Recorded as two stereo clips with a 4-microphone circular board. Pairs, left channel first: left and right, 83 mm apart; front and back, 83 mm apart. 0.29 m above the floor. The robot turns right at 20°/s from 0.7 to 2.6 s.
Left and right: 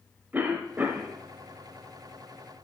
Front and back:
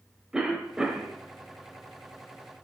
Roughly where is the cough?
Right.